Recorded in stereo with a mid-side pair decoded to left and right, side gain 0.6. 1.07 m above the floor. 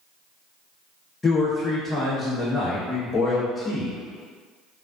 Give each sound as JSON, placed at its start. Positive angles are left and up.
{"t": 1.2, "sound": "a man speaking", "azimuth_deg": 20, "distance_m": 0.8}